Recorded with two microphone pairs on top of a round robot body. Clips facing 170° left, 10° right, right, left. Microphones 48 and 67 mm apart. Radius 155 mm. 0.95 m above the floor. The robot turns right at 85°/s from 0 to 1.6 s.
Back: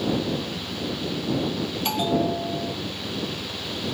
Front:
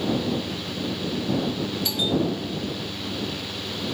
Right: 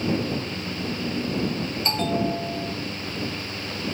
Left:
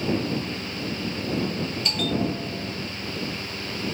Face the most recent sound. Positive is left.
turn(degrees=-145)